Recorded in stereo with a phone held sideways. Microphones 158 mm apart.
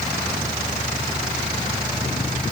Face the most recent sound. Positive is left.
No sound to turn to.